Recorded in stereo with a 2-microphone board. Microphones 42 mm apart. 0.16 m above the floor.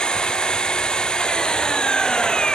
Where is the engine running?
20° left (ahead or behind).